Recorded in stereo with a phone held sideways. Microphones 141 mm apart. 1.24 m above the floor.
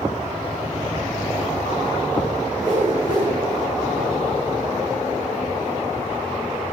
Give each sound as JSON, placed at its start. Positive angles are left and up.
{"t": 2.6, "sound": "a whoosh", "side_deg": -70, "distance_m": 3.5}